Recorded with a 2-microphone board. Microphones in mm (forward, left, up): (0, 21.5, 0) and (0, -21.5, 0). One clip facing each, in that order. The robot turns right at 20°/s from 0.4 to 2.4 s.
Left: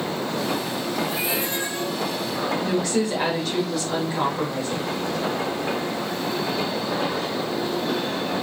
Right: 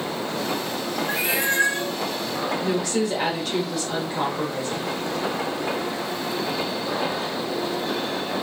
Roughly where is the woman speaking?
Centre.